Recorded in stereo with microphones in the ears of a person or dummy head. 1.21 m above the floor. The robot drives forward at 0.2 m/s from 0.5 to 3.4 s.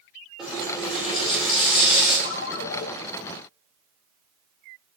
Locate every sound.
0.4 s a running tap: centre (ahead or behind), 4 m
2.2 s a ringtone: 65° left (ahead or behind), 0.5 m; by 2.9 s 55° left (ahead or behind), 0.6 m